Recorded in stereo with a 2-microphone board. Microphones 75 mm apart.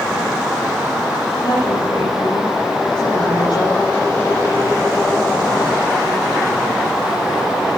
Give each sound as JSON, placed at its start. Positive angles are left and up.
{"t": 1.4, "sound": "a woman speaking", "side_deg": 75, "distance_m": 6.0}